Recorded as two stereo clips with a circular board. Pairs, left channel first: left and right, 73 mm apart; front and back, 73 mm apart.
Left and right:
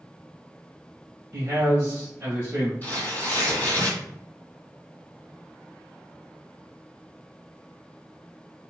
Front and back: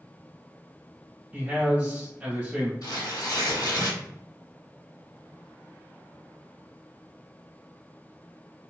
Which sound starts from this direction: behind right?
A man speaking, at 1.3 s.